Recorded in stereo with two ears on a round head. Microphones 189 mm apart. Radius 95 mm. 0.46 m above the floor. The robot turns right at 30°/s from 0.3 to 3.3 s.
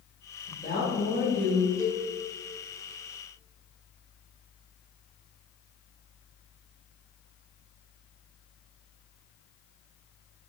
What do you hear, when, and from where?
0.5 s a woman speaking: 140° left, 1.5 m; by 1.7 s 175° left, 1.5 m
1.8 s a cowbell: 15° left (ahead or behind), 0.6 m; by 2.1 s 10° left (ahead or behind), 0.6 m